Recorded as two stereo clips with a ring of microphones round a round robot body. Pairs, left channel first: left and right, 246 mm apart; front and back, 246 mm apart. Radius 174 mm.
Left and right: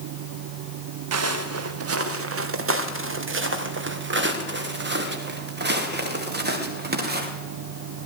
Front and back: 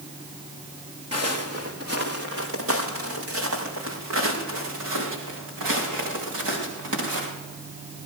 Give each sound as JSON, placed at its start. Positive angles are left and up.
{"t": 1.1, "sound": "footsteps", "azimuth_deg": -105, "distance_m": 2.5}